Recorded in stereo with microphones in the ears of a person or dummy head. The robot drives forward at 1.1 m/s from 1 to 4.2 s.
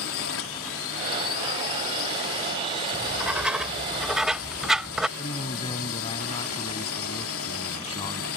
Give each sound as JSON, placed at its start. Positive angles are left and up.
{"t": 0.0, "sound": "a drone", "side_deg": 65}
{"t": 2.9, "sound": "writing", "side_deg": -10}
{"t": 5.2, "sound": "a man speaking", "side_deg": 30}